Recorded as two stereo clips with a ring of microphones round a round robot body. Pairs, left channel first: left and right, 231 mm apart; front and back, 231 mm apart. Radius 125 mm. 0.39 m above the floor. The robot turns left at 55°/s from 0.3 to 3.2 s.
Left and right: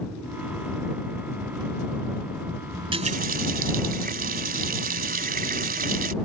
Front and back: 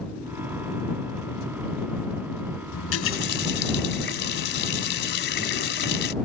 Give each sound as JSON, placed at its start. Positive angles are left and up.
{"t": 2.7, "sound": "a running tap", "azimuth_deg": -10}